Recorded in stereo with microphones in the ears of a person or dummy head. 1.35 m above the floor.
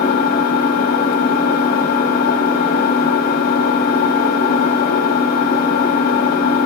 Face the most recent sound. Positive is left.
turn(degrees=60)  # may be behind; listen again after turning